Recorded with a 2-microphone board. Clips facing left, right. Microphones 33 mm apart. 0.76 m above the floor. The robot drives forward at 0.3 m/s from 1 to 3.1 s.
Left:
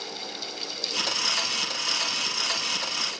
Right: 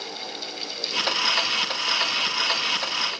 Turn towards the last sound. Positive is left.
No sound to turn to.